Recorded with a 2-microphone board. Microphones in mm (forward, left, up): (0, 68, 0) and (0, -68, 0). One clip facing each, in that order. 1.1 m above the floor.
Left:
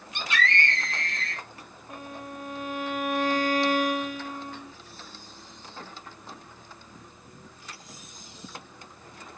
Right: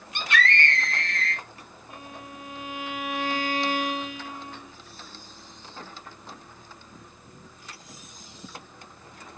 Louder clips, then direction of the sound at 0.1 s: Right 2 dB; 65° right (ahead or behind).